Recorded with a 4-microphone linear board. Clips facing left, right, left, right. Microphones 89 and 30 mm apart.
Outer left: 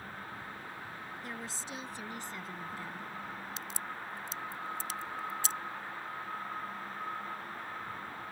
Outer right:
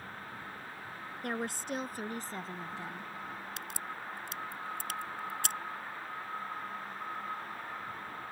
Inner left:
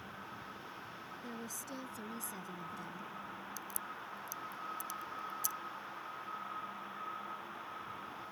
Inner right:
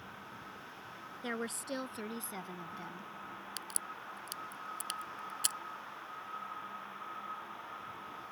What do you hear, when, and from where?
1.2 s a woman speaking: 60° right (ahead or behind); by 3.1 s 10° right (ahead or behind)
3.6 s a crack: 60° right (ahead or behind)